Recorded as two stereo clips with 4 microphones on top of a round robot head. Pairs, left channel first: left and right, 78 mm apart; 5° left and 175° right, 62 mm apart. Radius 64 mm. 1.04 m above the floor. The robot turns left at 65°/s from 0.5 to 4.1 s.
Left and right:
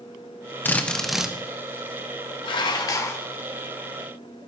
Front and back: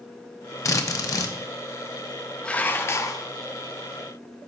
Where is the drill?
30° left, 1.3 m; by 1.4 s 15° right, 1.3 m.